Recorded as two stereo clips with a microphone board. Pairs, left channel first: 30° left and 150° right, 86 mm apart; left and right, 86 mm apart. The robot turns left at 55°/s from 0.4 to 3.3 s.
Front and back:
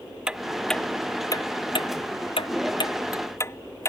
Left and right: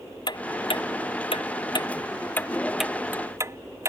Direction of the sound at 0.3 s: 130° left.